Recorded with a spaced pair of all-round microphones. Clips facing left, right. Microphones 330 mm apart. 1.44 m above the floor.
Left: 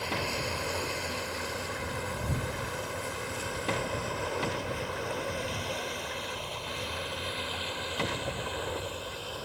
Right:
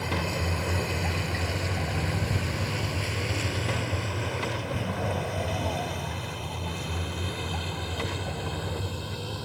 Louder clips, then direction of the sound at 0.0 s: Right 3 dB; 65° right (ahead or behind).